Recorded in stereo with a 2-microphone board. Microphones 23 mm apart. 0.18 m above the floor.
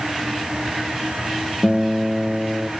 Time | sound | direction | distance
1.6 | a guitar | 15° right (ahead or behind) | 0.6 m